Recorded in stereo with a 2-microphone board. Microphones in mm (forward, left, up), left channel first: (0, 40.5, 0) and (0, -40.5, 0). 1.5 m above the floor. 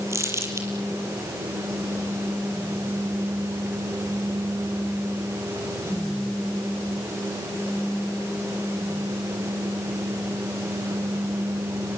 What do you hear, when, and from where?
0.1 s crumpling: 35° right (ahead or behind), 6.5 m